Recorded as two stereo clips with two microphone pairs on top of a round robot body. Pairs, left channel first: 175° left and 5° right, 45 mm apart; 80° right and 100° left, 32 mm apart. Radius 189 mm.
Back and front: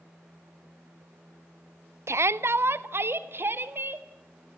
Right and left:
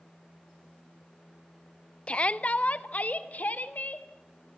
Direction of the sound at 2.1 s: 25° right.